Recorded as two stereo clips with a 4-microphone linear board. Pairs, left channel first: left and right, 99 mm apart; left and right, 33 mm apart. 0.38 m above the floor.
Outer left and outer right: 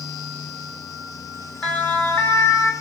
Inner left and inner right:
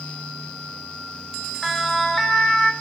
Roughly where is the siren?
Centre.